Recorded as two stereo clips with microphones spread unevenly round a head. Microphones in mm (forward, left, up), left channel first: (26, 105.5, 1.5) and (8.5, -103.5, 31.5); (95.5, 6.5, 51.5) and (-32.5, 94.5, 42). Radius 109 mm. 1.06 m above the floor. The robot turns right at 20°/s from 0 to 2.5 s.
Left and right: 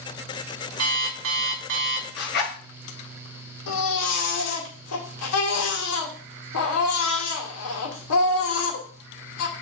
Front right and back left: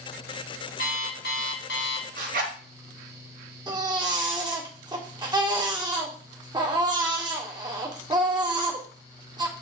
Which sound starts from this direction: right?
An alarm clock, at 0.8 s.